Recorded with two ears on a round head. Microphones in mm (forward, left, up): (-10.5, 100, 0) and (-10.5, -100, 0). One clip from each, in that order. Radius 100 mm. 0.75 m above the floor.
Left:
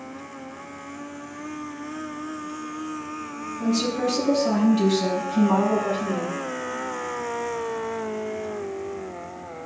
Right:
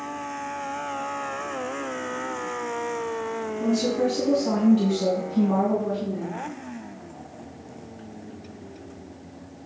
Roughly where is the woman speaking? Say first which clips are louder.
Even; left.